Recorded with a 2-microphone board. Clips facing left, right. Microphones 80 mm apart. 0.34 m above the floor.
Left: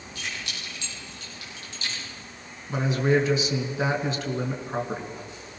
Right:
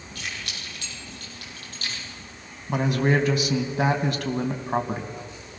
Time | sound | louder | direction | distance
0.1 | keys jangling | even | 60° right (ahead or behind) | 8.5 m
2.7 | a man speaking | right 1 dB | 65° right (ahead or behind) | 2.5 m